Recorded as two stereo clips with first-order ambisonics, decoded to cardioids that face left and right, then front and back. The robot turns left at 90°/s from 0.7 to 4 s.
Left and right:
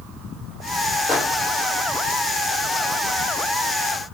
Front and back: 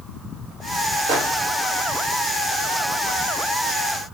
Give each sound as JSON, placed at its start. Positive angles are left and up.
{"t": 1.1, "sound": "a microwave", "azimuth_deg": 170, "distance_m": 0.9}